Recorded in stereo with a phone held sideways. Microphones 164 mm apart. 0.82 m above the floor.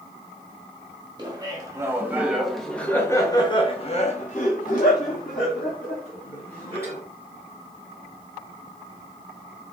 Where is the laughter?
25° right (ahead or behind), 1.7 m; by 7.0 s 70° left (ahead or behind), 2.5 m.